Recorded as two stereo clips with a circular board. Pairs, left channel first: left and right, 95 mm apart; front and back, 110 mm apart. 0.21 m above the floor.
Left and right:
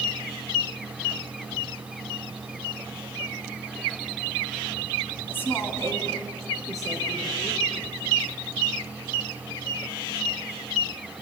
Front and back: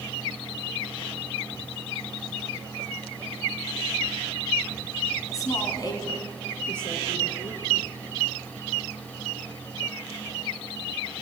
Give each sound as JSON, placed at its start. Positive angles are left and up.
{"t": 5.3, "sound": "a woman speaking", "azimuth_deg": 35, "distance_m": 1.8}